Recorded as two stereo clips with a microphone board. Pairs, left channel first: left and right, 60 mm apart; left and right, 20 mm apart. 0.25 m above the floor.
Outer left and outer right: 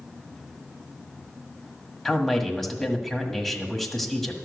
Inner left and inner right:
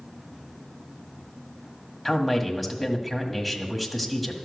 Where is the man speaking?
5° left (ahead or behind), 1.5 m.